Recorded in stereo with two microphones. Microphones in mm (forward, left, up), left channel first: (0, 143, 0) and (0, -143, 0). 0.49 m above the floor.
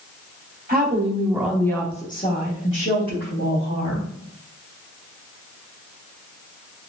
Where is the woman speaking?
35° right (ahead or behind), 1.2 m; by 4.1 s 60° left (ahead or behind), 2.5 m.